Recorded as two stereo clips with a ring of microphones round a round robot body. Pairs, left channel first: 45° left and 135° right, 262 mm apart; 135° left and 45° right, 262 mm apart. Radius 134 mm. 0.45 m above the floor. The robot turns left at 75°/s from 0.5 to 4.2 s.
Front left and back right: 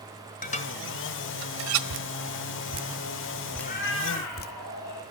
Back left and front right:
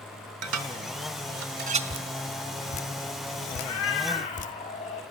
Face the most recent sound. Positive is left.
turn(degrees=70)